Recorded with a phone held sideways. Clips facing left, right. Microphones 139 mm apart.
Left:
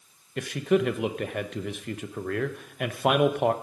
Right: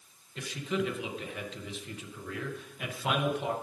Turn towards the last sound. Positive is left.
turn(degrees=65)  # may be behind; listen again after turning